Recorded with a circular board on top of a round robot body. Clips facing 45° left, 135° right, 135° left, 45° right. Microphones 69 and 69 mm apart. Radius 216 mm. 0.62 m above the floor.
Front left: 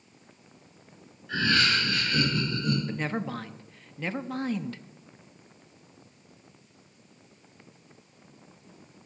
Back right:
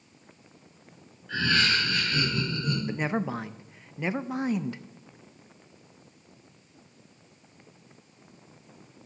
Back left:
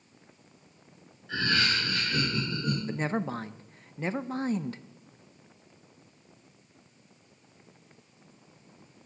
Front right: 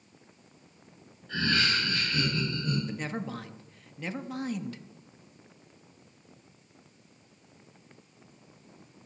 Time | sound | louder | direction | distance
1.3 | laughter | even, even | 130° left | 3.5 m
2.9 | a woman speaking | back right 2 dB, back left 4 dB | 160° left | 0.6 m